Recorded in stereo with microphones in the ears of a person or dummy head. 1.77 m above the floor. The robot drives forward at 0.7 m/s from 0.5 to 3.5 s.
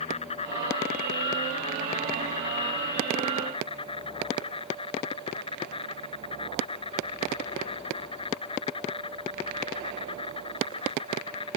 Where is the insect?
35° left (ahead or behind); by 11.6 s 30° left (ahead or behind).